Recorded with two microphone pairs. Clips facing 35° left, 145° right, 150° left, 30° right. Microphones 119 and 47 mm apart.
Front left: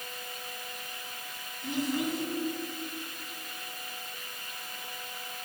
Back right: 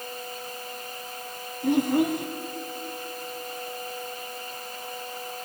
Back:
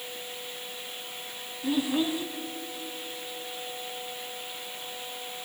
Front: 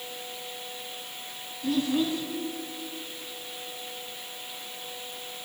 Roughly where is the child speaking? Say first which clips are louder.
Back right 9 dB, front 1 dB; behind right.